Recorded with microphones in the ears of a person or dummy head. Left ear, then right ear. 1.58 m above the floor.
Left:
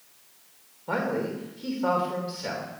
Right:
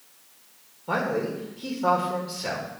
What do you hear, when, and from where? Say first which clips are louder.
0.9 s a man speaking: right 2 dB; 5° left (ahead or behind), 2 m